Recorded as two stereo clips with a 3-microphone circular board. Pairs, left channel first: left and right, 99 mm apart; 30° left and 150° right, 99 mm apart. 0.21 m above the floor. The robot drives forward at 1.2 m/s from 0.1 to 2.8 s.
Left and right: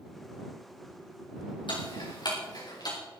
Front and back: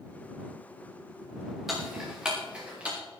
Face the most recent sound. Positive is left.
turn(degrees=135)